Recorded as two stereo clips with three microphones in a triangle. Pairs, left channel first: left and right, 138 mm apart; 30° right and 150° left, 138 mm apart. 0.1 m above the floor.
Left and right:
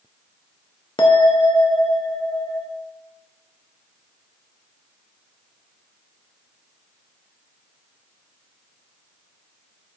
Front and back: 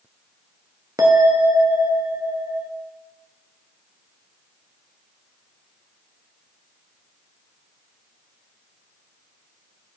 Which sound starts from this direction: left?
A bell, at 1.0 s.